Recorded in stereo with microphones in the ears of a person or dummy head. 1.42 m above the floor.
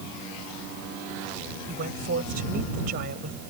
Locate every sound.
1.7 s a woman speaking: 45° right (ahead or behind)